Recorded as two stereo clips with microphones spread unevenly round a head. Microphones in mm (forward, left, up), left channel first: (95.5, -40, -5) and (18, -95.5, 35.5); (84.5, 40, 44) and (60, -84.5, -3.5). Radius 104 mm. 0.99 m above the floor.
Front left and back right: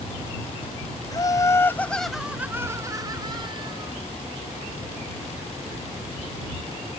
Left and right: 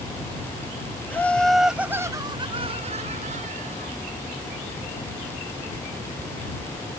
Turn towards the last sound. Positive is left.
turn(degrees=-105)